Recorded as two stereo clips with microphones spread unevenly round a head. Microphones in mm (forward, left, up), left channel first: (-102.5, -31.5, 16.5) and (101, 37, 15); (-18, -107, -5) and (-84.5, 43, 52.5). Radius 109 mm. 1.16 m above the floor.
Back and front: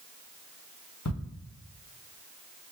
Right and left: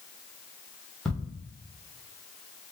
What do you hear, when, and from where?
1.1 s ticking: 150° right, 1.4 m